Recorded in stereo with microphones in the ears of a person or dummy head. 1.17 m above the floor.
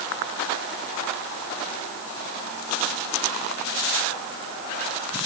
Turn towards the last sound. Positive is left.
No sound to turn to.